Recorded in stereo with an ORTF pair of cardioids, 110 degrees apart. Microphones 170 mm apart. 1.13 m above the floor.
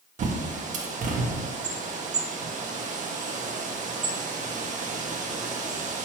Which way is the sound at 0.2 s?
45° right.